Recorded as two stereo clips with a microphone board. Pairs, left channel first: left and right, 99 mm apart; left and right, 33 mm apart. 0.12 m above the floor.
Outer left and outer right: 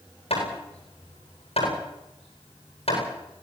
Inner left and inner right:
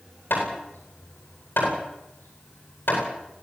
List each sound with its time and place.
0.3 s hammering: 85° left, 9 m